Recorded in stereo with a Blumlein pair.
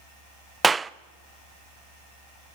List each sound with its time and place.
0.6 s a clap: 10° right, 0.5 m